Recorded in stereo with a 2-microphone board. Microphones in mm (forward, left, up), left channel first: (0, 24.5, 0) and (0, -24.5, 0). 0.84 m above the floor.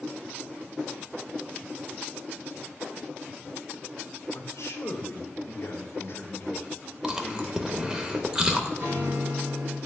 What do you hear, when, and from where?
4.3 s a man speaking: 80° left, 1.9 m; by 8.0 s 20° left (ahead or behind), 2.5 m
7.0 s chewing: 15° right (ahead or behind), 0.7 m
8.8 s a guitar: 55° right (ahead or behind), 2.5 m